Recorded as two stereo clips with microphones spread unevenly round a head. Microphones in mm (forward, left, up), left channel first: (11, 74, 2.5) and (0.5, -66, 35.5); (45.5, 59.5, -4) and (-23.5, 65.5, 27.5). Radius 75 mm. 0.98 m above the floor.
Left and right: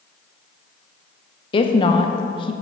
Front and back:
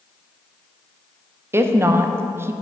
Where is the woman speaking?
105° left, 0.5 m.